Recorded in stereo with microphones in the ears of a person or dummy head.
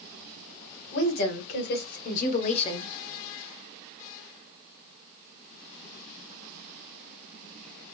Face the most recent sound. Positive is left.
turn(degrees=20)  # may be behind; listen again after turning